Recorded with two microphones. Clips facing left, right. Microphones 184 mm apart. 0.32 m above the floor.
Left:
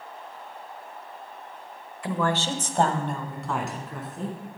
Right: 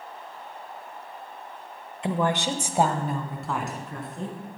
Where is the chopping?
No chopping in this recording.